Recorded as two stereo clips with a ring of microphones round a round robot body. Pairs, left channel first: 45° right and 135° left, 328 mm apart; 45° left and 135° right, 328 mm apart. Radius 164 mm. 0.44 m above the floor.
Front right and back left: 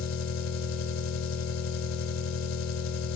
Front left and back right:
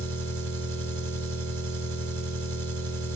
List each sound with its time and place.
0.0 s an engine running: 85° right, 2.5 m